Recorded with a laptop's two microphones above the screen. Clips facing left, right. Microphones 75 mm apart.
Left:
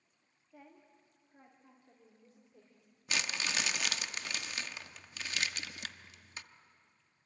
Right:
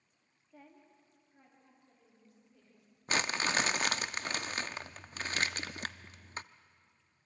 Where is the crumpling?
40° right (ahead or behind), 0.7 m.